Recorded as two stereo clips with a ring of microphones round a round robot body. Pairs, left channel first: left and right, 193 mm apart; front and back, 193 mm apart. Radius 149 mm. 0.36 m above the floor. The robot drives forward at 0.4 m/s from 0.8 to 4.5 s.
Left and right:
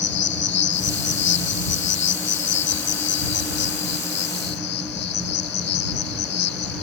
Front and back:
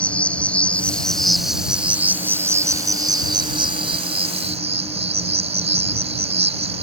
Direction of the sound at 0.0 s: 85° left.